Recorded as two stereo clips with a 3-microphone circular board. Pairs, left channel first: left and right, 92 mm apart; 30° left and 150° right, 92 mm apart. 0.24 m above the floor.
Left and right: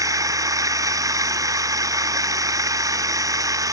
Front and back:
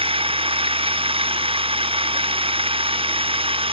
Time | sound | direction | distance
0.0 | running water | 140° right | ?